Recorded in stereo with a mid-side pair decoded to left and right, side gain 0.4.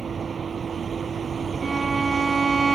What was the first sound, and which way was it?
A vehicle, 40° right.